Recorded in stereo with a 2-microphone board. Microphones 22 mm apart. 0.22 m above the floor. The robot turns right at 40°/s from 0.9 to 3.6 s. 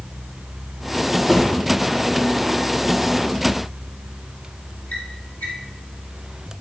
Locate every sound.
1.2 s a drawer: 5° right (ahead or behind), 2 m; by 5.5 s 85° left, 2 m